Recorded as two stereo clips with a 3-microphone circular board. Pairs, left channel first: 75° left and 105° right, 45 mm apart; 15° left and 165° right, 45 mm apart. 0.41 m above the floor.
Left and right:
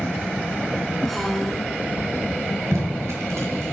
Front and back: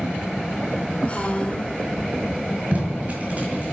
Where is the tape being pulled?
115° right, 3 m.